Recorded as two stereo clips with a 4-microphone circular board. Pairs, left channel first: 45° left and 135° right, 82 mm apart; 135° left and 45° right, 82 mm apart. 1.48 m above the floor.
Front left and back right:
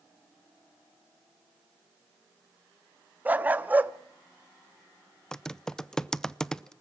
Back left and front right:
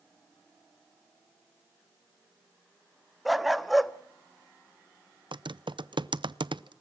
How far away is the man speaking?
No man speaking in this recording.